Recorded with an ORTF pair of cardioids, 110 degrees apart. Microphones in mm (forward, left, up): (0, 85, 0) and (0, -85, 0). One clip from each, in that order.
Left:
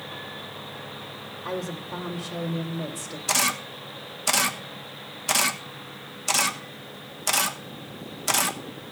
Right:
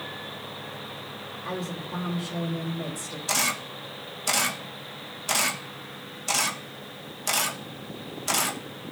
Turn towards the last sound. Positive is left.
turn(degrees=20)